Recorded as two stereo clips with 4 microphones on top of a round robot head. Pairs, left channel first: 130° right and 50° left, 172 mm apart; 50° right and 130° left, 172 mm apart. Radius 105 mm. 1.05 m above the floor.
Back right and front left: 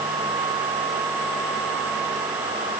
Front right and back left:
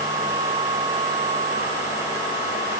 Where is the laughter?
No laughter in this recording.